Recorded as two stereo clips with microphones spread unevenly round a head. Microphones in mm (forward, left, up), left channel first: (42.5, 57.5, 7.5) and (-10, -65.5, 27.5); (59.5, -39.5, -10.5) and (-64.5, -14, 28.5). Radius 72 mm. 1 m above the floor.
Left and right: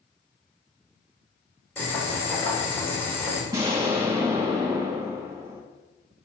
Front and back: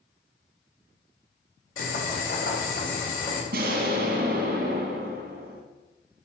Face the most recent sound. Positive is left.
turn(degrees=175)